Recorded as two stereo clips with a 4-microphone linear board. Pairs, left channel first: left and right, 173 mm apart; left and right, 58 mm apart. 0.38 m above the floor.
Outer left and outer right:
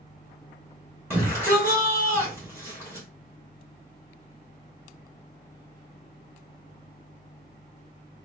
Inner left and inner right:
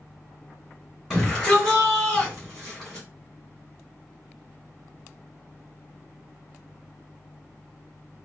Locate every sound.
1.1 s a shout: 10° right (ahead or behind), 2.5 m